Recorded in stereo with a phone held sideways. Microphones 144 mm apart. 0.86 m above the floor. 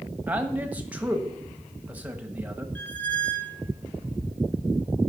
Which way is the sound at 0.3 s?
10° right (ahead or behind).